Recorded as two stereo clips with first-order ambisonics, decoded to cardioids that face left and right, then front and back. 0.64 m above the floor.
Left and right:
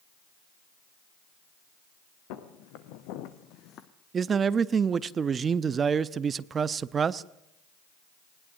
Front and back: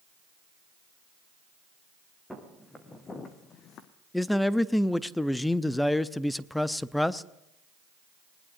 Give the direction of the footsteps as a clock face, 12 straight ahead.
9 o'clock.